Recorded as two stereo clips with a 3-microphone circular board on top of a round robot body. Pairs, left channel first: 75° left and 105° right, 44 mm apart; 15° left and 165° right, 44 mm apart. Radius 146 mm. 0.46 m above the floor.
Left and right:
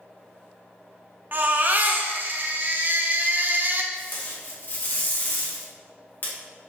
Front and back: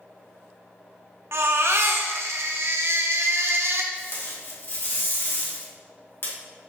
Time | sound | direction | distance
1.3 | a baby crying | 150° right | 0.8 m
3.9 | tape being pulled | 40° left | 2 m